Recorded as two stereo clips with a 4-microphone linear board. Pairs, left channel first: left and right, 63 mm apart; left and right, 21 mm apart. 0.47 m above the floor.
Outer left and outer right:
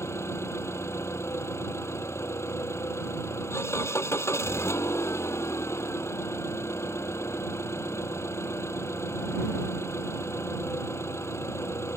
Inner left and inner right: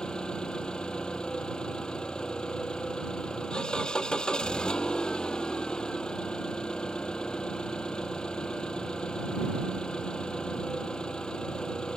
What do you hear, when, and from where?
0.0 s an engine running: 45° left (ahead or behind)